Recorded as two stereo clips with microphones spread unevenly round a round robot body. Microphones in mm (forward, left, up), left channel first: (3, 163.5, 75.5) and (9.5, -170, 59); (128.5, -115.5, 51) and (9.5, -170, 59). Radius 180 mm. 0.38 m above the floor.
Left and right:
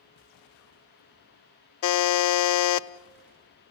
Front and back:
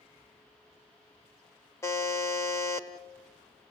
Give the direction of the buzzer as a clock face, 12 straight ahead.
9 o'clock.